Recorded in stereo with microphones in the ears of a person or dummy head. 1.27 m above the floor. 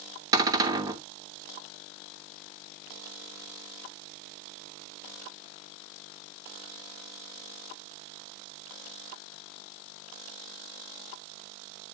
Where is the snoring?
I don't hear snoring.